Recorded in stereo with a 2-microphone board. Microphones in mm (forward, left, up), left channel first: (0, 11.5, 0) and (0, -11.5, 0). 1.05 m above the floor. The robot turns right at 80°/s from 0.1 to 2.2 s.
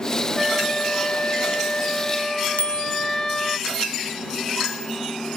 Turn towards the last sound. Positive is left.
turn(degrees=70)  # may be behind; listen again after turning